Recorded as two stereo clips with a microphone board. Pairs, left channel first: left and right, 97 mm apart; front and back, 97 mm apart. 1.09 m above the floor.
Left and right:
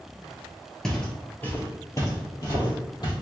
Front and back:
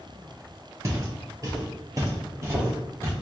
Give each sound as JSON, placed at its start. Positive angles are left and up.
{"t": 0.8, "sound": "footsteps", "azimuth_deg": 175, "distance_m": 1.2}